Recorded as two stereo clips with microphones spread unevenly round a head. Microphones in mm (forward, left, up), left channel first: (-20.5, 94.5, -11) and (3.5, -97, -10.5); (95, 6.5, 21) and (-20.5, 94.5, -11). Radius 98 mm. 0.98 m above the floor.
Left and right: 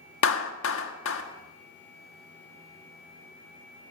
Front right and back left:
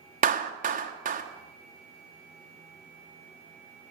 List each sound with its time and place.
0.2 s a clap: 120° left, 1.5 m